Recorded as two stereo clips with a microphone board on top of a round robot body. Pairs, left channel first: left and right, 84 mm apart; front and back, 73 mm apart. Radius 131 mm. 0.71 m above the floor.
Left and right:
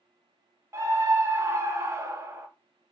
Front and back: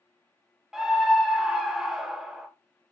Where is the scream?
100° right, 1.0 m.